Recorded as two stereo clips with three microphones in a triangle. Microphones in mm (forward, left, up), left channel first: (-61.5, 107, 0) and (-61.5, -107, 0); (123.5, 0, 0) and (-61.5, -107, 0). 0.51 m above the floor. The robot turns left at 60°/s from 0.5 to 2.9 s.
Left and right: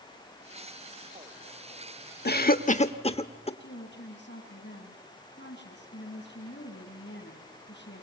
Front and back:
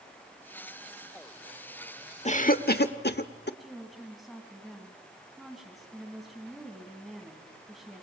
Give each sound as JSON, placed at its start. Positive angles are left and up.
{"t": 2.2, "sound": "a cough", "azimuth_deg": 75, "distance_m": 1.0}
{"t": 3.6, "sound": "a woman speaking", "azimuth_deg": 120, "distance_m": 3.5}